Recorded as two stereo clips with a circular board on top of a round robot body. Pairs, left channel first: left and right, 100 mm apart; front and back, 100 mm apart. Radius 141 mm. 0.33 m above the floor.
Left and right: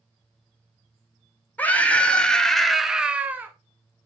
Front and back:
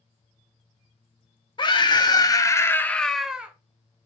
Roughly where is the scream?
Ahead.